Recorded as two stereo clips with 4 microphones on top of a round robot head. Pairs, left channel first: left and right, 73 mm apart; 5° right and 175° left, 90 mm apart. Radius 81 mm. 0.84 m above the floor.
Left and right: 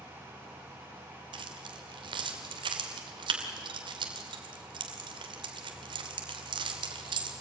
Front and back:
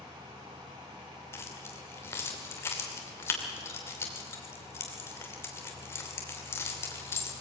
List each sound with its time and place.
1.3 s keys jangling: 70° right, 2.5 m